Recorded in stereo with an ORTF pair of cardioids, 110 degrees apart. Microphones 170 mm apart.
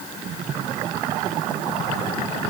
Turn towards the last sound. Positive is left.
No sound to turn to.